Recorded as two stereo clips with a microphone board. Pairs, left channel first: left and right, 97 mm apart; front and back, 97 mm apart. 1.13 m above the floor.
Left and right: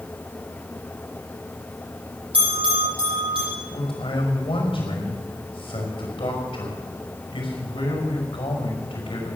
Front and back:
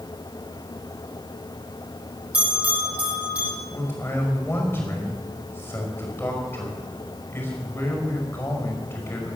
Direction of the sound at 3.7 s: 65° left.